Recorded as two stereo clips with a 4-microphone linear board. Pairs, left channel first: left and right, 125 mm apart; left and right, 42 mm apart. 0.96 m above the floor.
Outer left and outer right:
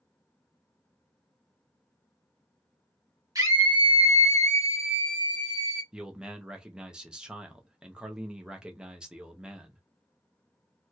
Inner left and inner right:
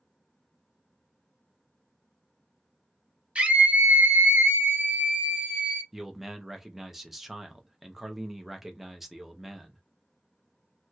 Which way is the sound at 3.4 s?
30° right (ahead or behind).